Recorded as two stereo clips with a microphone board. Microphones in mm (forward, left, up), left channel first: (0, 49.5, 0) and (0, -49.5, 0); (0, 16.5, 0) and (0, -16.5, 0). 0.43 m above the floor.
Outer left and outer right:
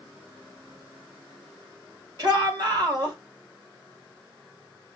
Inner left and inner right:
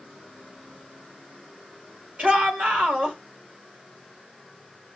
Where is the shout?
45° right (ahead or behind), 2.5 m.